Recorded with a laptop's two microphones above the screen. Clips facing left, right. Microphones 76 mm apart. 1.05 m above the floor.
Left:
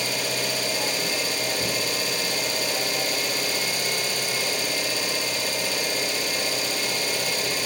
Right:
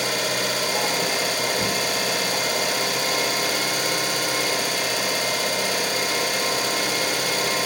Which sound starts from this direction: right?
An engine running, at 0.0 s.